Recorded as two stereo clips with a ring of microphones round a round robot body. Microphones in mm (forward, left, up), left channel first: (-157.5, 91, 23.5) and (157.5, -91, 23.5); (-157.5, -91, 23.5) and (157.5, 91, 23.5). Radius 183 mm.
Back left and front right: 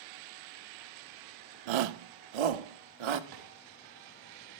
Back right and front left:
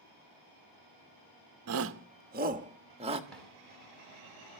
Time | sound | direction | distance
1.7 | a shout | 20° right | 0.7 m
3.3 | a drawer | 60° right | 4 m